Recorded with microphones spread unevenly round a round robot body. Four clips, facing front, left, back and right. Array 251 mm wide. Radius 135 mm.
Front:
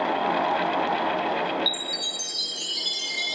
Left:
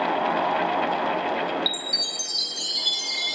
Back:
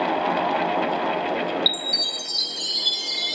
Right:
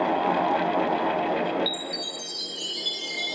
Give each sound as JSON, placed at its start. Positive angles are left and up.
{"t": 1.7, "sound": "a chime", "azimuth_deg": 90, "distance_m": 3.0}